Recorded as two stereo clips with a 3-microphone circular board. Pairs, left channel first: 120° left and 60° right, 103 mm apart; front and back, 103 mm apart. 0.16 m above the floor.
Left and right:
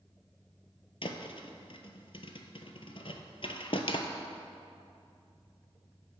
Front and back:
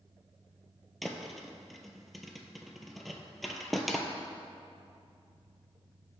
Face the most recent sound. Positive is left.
turn(degrees=90)